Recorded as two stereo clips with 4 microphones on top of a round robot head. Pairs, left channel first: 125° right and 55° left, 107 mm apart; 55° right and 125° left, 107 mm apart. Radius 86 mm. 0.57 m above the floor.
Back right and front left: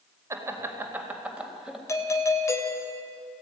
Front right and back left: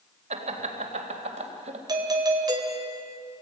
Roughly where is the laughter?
Behind left.